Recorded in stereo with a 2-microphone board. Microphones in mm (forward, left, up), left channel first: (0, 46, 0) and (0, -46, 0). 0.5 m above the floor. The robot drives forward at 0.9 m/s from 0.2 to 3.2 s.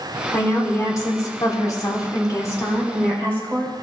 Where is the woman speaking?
25° left (ahead or behind), 1.6 m.